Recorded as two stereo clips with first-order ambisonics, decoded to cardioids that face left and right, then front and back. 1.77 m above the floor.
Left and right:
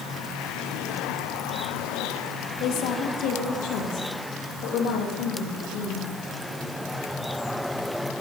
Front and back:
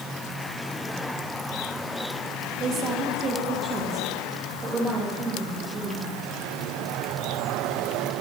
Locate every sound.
2.6 s a woman speaking: 125° left, 1.6 m; by 6.1 s 115° left, 3.5 m